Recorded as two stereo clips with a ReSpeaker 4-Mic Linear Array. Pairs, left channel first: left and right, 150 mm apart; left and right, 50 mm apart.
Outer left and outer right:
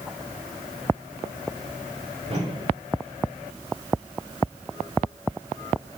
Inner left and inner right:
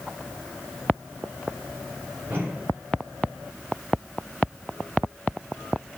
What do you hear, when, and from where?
2.3 s a whoosh: 45° right (ahead or behind), 2.5 m